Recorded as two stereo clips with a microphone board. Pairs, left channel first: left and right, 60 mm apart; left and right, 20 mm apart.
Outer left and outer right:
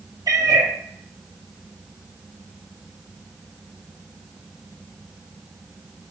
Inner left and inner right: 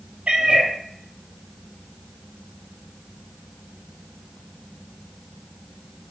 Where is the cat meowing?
85° right, 0.6 m.